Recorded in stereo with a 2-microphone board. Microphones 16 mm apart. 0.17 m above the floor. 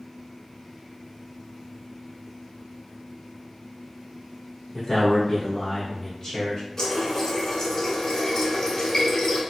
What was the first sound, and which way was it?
A man speaking, 35° left (ahead or behind).